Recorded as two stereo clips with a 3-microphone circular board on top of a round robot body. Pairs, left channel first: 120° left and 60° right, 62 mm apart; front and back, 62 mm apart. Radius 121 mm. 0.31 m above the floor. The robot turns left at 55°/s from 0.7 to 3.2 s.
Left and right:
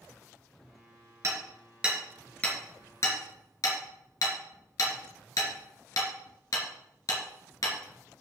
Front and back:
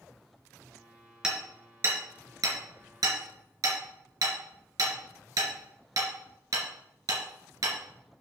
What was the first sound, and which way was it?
Hammering, 105° right.